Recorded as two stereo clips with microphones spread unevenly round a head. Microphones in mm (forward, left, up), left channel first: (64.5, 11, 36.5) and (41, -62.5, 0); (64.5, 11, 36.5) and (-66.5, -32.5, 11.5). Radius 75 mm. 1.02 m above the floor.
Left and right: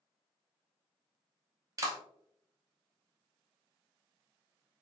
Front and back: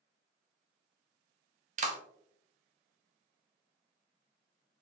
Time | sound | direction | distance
1.8 | a clap | 140° right | 0.8 m